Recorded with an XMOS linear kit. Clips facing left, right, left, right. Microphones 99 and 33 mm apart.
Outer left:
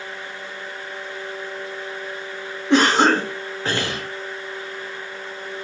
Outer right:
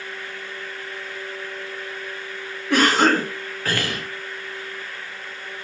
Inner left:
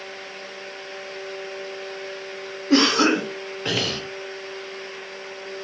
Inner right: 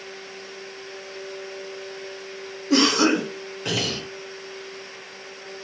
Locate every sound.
2.7 s a cough: 25° left (ahead or behind), 0.8 m